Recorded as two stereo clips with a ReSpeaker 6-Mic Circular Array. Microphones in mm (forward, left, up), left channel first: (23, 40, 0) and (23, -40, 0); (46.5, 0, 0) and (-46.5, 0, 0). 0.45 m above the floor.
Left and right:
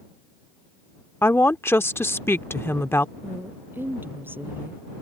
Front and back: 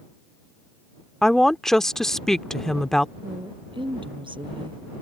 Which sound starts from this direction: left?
A woman speaking, at 1.2 s.